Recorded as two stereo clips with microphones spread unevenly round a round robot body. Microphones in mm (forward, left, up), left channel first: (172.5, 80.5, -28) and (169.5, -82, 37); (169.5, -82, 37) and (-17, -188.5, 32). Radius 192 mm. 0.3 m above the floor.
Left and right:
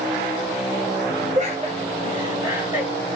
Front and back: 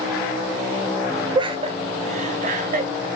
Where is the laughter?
130° right, 1.0 m; by 3.1 s 170° left, 1.5 m.